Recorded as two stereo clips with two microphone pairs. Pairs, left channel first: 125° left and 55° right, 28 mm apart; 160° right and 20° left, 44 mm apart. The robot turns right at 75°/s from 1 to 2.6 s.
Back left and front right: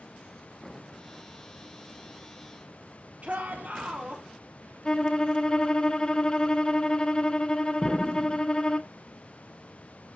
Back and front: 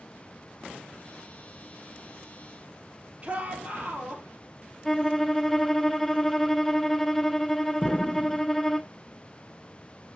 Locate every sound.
3.2 s a shout: 40° right, 3 m
4.8 s a violin: 120° left, 0.6 m
7.8 s an explosion: 145° right, 0.6 m